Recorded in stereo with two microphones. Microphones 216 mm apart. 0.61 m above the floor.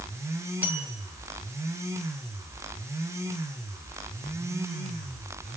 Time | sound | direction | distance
0.6 | a bell | 5° right (ahead or behind) | 4 m